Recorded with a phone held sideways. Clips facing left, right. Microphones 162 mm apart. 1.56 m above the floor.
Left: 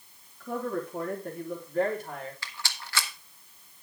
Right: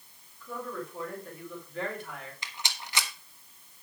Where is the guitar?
No guitar in this recording.